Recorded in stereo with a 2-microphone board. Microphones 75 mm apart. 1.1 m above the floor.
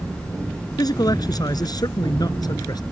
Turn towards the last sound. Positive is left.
turn(degrees=60)  # may be behind; listen again after turning